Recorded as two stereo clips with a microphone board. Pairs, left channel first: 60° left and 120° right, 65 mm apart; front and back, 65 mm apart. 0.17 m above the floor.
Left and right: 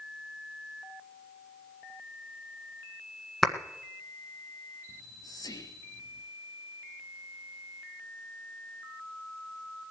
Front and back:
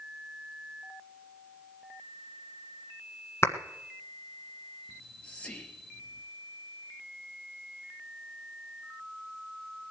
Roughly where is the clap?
Ahead right.